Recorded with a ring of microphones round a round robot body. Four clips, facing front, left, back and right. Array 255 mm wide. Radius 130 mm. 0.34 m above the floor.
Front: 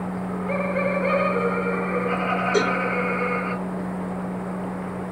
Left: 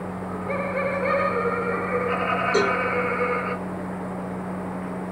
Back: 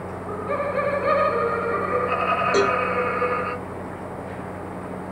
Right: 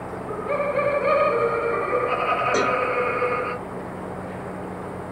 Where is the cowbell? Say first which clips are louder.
Left 2 dB, back 2 dB; 140° right, 3 m.